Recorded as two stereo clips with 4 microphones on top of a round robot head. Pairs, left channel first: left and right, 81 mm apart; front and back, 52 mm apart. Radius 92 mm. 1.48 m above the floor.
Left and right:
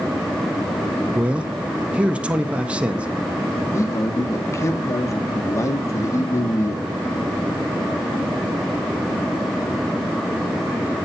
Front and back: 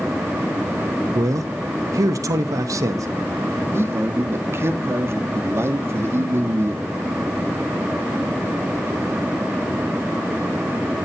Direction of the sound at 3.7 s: 145° left.